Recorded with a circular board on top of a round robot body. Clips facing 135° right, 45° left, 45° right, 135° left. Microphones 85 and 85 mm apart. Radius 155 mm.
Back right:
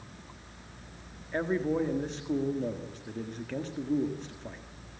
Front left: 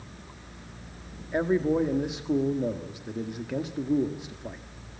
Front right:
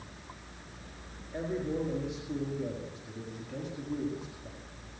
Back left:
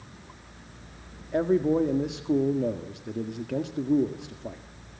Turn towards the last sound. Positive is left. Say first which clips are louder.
# front left 5 dB, back left 11 dB
turn(degrees=125)